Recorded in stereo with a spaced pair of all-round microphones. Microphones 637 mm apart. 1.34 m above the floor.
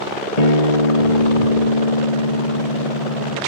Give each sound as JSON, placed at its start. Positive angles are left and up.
{"t": 0.4, "sound": "a guitar", "side_deg": 75}